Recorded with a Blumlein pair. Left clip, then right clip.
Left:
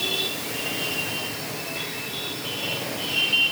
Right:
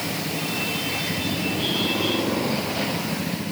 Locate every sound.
Only background noise.